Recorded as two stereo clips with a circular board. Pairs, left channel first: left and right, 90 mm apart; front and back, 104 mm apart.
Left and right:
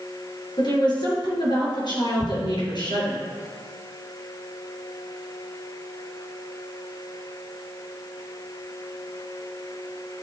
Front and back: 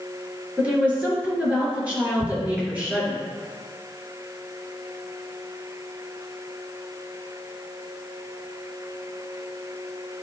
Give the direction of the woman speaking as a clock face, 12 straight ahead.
8 o'clock.